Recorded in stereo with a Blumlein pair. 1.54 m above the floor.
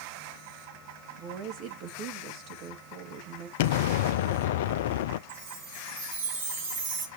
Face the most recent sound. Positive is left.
turn(degrees=-55)